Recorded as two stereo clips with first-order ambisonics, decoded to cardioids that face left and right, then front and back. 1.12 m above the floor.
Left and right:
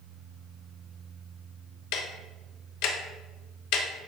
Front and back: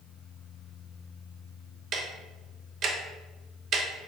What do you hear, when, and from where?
1.9 s ticking: 125° left, 0.6 m